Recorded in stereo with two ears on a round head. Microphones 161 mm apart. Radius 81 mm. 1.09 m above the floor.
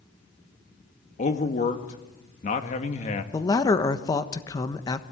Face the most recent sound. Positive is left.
turn(degrees=20)  # may be behind; listen again after turning